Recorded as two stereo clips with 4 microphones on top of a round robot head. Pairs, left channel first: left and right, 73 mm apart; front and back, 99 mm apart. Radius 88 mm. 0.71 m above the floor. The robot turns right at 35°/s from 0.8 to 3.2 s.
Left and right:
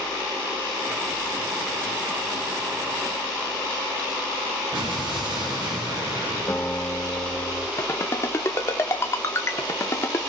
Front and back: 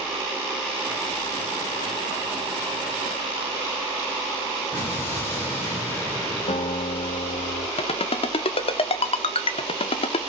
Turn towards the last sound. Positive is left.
turn(degrees=25)